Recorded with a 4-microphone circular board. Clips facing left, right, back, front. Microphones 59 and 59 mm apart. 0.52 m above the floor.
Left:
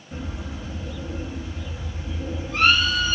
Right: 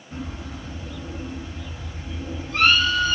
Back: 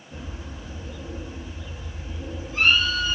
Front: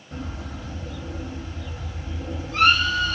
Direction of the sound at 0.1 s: 5° left.